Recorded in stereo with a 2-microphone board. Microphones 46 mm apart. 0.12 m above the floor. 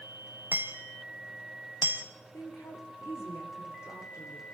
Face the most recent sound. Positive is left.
turn(degrees=75)  # may be behind; listen again after turning